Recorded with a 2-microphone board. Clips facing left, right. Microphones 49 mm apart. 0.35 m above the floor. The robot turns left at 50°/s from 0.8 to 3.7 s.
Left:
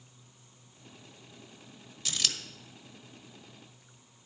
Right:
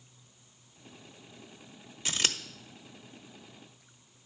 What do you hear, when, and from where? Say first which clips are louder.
2.0 s scissors: right 3 dB; 30° right (ahead or behind), 0.9 m; by 2.4 s 40° right (ahead or behind), 0.9 m